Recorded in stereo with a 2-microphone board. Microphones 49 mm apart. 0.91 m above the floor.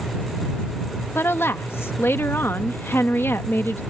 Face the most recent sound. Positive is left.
turn(degrees=55)  # may be behind; listen again after turning